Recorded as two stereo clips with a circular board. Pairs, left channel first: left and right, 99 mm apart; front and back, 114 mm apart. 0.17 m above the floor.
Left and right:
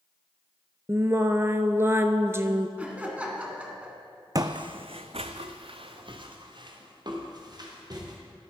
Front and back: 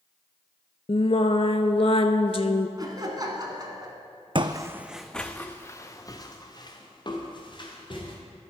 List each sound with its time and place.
0.9 s singing: 25° right, 0.5 m
2.8 s laughter: 160° right, 1.2 m
4.3 s footsteps: 140° right, 0.5 m; by 8.2 s 45° right, 2.5 m